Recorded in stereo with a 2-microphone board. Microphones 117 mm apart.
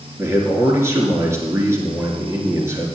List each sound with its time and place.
0.2 s a man speaking: 25° right (ahead or behind), 3 m